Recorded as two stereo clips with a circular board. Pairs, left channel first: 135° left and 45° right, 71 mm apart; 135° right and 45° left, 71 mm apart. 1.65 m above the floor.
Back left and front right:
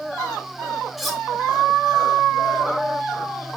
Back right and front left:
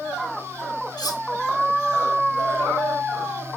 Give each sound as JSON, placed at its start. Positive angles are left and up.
{"t": 1.0, "sound": "cutlery clinking", "azimuth_deg": -135, "distance_m": 1.9}